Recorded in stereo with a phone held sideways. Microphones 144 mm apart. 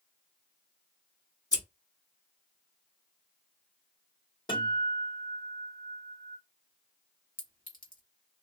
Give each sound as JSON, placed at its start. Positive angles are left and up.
{"t": 1.5, "sound": "scissors", "side_deg": 25, "distance_m": 1.7}
{"t": 4.5, "sound": "a guitar", "side_deg": 30, "distance_m": 1.8}
{"t": 7.4, "sound": "a clink", "side_deg": 80, "distance_m": 1.2}